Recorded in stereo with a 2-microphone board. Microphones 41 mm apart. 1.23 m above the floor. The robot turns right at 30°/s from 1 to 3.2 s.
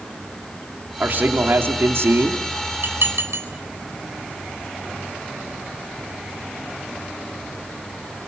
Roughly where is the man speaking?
Behind right.